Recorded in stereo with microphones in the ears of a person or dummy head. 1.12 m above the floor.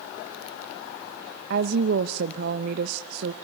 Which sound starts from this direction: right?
A woman speaking, at 1.5 s.